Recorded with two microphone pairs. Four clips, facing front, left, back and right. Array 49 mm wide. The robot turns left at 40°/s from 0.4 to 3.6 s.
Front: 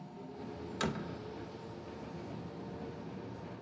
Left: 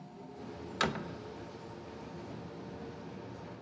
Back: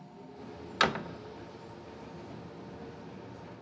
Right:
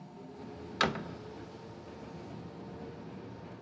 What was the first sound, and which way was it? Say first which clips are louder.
A door slam: right 2 dB, back 9 dB; 170° right.